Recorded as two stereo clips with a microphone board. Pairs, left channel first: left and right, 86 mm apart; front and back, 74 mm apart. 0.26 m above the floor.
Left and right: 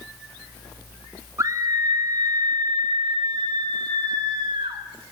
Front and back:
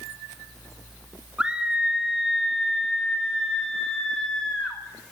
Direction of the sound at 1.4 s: 110° right.